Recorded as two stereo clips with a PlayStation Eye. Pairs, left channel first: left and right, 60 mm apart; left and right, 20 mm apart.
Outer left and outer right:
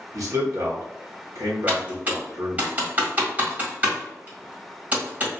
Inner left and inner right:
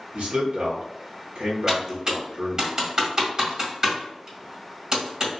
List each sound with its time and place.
0.1 s a man speaking: 65° right (ahead or behind), 1.2 m
1.7 s typing on a keyboard: 30° right (ahead or behind), 1.5 m